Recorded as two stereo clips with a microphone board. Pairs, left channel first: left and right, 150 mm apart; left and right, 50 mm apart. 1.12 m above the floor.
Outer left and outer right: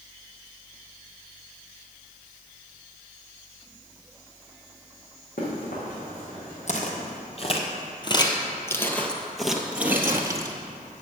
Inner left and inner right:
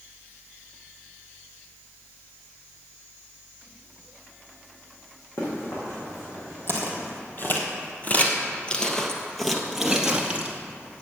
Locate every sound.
5.4 s running footsteps: 70° left (ahead or behind), 4 m; by 7.1 s 80° left, 6 m
6.7 s footsteps: 50° left (ahead or behind), 1.7 m; by 10.6 s 25° right (ahead or behind), 1.4 m